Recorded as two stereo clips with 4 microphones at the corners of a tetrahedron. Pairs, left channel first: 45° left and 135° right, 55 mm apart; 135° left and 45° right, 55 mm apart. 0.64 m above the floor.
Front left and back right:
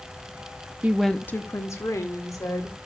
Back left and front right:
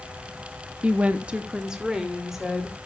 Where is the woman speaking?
90° right, 0.7 m; by 2.8 s 40° left, 3 m.